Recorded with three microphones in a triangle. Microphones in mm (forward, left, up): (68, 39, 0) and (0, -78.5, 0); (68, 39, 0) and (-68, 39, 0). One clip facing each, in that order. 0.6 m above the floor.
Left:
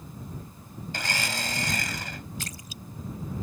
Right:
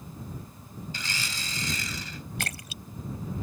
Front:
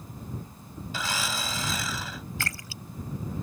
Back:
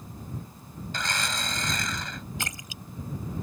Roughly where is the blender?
Left.